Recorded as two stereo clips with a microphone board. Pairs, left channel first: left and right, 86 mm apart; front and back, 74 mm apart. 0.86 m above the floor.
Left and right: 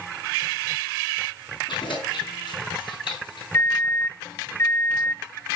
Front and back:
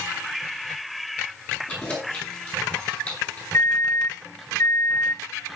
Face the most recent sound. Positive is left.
turn(degrees=35)